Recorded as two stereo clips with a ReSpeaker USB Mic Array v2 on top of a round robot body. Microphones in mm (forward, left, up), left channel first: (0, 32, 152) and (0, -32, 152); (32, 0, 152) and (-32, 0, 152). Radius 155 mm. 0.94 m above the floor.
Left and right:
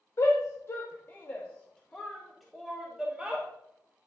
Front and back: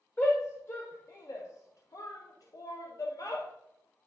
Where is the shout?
55° left, 1.6 m; by 3.5 s 20° right, 1.7 m.